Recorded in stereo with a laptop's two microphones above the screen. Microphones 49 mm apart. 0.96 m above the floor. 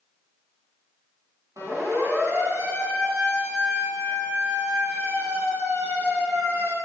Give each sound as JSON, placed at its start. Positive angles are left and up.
{"t": 1.6, "sound": "a siren", "side_deg": -75, "distance_m": 9.5}